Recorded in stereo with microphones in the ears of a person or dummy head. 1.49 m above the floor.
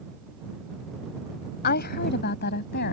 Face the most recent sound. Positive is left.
turn(degrees=55)  # may be behind; listen again after turning